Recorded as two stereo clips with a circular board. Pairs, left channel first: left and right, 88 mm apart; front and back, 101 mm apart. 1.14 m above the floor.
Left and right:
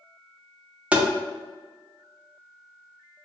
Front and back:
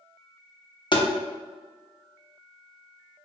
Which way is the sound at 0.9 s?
20° right.